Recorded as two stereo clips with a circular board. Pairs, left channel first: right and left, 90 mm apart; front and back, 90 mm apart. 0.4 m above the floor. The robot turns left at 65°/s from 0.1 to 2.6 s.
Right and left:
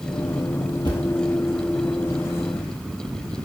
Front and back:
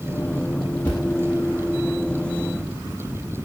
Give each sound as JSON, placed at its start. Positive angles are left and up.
{"t": 0.8, "sound": "a thud", "azimuth_deg": -70, "distance_m": 3.5}